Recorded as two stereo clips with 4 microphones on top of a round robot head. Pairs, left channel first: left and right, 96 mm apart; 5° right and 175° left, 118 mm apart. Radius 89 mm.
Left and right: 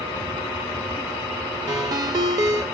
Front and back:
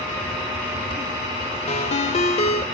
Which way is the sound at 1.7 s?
35° right.